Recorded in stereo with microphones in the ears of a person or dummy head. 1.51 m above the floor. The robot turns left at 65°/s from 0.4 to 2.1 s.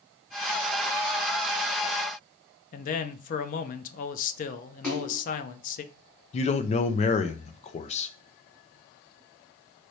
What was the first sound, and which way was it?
A man speaking, 45° left (ahead or behind).